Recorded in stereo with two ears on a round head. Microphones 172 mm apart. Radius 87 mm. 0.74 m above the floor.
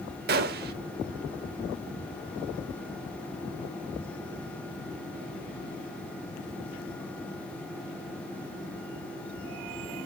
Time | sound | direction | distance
0.3 | a gunshot | 50° right (ahead or behind) | 0.7 m